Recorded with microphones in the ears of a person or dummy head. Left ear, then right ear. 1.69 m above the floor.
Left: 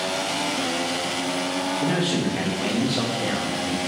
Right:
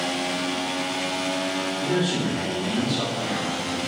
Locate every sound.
1.8 s a man speaking: 25° left (ahead or behind), 0.6 m